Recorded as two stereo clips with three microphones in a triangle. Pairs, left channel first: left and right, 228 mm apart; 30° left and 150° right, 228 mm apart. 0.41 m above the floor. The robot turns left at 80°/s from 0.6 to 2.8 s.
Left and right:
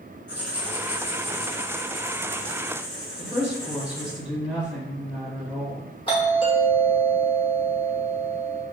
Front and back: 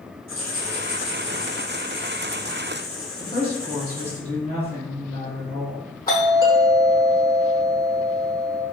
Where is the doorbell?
85° left, 1.2 m.